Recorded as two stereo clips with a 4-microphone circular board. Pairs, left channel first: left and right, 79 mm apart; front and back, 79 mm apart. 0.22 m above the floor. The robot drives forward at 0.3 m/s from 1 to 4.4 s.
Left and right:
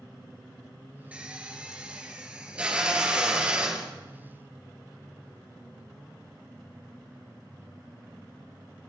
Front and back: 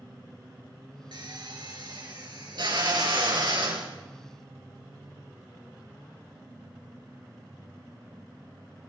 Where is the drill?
165° right, 4.5 m.